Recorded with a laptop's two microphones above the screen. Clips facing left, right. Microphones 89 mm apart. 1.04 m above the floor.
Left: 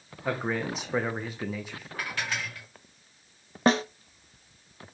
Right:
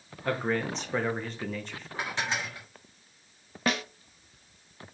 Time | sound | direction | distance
0.2 | a man speaking | 5° left (ahead or behind) | 0.9 m
2.0 | dishes clattering | 25° right (ahead or behind) | 1.6 m
3.7 | a snare drum | 30° left (ahead or behind) | 0.5 m